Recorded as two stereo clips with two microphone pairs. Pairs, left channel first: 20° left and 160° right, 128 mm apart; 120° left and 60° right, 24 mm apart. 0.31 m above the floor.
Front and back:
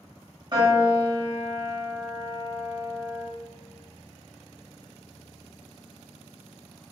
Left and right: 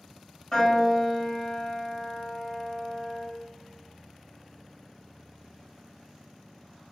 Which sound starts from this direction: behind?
A piano, at 0.5 s.